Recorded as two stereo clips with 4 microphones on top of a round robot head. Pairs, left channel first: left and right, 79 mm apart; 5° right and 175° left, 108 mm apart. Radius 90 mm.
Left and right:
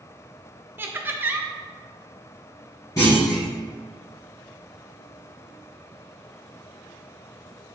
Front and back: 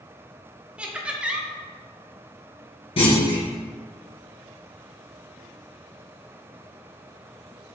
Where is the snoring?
I don't hear snoring.